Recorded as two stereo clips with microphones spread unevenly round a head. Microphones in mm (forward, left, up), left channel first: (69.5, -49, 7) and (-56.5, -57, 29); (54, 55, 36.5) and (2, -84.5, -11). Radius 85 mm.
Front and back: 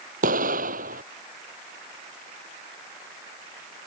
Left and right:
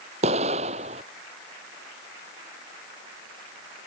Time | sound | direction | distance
0.2 | an explosion | 165° right | ?